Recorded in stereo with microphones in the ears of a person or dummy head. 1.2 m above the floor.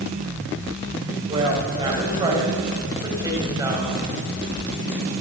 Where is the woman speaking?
30° right (ahead or behind), 5 m; by 4.0 s 20° right (ahead or behind), 6 m.